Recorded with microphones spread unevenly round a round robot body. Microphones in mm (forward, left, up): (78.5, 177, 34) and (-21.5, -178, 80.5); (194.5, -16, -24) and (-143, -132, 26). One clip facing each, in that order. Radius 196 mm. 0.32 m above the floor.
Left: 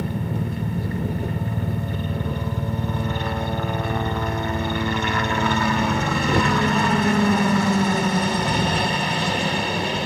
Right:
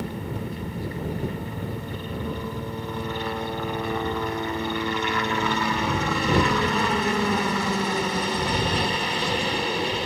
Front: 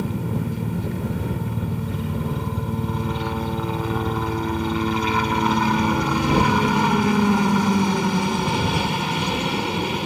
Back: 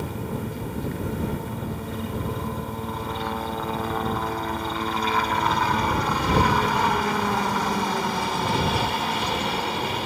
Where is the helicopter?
85° left.